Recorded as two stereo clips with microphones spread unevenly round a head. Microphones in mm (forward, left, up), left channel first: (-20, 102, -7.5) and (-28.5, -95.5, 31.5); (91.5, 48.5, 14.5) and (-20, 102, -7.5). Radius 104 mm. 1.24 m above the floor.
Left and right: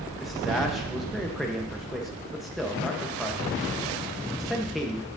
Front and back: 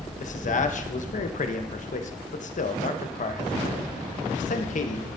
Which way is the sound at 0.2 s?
5° right.